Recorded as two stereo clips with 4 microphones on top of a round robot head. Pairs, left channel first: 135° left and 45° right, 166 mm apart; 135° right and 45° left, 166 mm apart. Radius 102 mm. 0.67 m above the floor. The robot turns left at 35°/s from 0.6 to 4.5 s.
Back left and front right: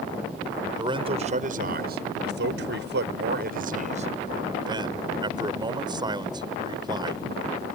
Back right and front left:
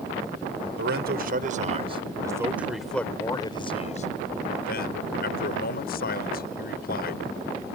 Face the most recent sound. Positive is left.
turn(degrees=-105)